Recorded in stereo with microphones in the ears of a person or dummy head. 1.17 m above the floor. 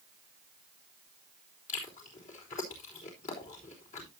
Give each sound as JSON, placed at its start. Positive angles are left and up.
{"t": 1.7, "sound": "chewing", "side_deg": 45, "distance_m": 4.0}